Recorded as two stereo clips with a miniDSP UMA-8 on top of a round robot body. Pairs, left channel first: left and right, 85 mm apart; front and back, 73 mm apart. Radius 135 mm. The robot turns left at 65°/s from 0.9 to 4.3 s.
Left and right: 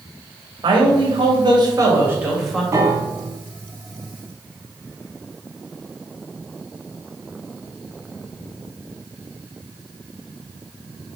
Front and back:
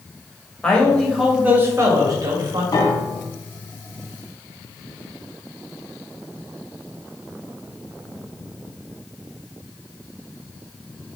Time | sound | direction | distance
0.6 | a man speaking | 75° right | 2.5 m
2.7 | a piano | 35° right | 1.6 m